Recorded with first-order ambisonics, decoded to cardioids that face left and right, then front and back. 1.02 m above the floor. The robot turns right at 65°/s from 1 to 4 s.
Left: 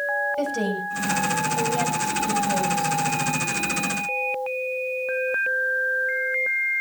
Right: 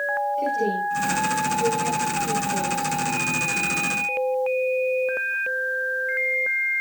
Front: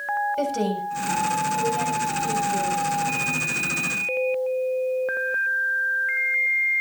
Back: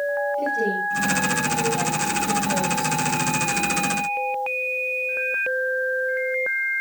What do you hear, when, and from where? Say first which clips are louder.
0.4 s a woman speaking: right 2 dB, back 2 dB; 30° left, 7 m; by 3.0 s 160° left, 7 m